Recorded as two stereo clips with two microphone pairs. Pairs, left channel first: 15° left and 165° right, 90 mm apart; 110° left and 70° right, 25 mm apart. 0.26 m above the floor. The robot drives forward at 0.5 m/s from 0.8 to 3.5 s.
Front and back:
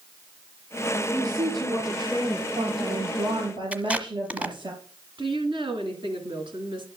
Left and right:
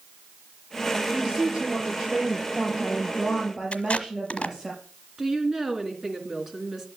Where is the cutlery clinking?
I don't hear cutlery clinking.